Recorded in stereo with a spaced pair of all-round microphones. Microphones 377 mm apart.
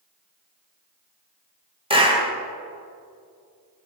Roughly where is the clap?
Centre.